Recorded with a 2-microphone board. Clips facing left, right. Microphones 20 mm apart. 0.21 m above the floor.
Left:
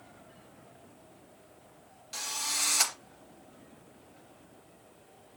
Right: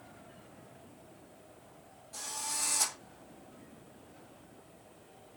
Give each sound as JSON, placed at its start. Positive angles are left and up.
{"t": 2.1, "sound": "a drill", "side_deg": 65, "distance_m": 2.5}